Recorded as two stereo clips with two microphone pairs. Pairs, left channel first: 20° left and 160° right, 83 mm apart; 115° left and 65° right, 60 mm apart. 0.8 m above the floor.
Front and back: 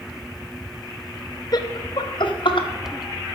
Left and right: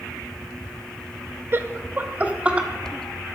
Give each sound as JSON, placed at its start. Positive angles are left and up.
{"t": 1.5, "sound": "laughter", "azimuth_deg": -15, "distance_m": 0.9}